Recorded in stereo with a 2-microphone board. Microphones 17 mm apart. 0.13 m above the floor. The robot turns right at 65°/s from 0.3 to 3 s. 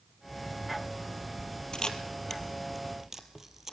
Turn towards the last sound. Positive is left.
turn(degrees=-25)  # may be behind; listen again after turning